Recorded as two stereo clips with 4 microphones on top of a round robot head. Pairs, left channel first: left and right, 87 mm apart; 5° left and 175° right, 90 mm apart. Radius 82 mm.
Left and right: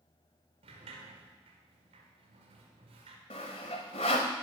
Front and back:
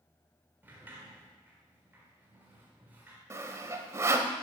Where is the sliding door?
100° right, 1.3 m.